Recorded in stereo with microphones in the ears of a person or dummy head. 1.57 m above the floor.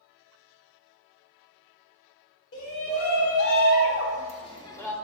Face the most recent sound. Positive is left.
turn(degrees=15)  # may be behind; listen again after turning